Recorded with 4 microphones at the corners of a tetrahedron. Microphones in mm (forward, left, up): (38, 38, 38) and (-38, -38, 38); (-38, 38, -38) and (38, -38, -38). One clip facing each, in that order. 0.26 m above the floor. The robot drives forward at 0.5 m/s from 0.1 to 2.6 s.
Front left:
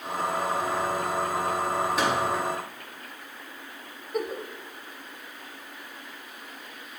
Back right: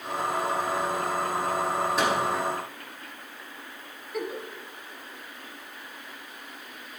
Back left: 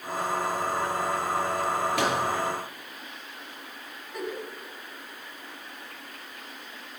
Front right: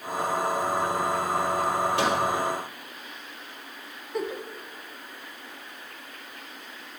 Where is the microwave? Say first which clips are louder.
Back right 1 dB, front right 1 dB; 135° left, 2.5 m.